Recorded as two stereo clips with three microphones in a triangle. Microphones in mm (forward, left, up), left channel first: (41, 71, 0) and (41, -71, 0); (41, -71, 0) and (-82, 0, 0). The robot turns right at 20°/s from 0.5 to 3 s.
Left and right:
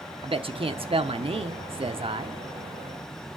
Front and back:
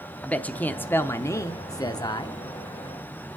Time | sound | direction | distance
0.2 | a man speaking | 105° right | 0.8 m